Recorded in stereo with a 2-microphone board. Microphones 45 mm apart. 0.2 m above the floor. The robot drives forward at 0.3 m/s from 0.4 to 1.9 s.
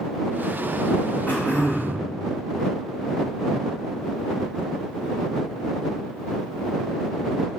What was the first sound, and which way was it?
Throat clearing, 45° left (ahead or behind).